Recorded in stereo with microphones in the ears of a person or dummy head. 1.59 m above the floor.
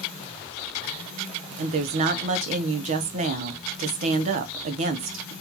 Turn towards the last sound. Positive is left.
turn(degrees=-45)  # may be behind; listen again after turning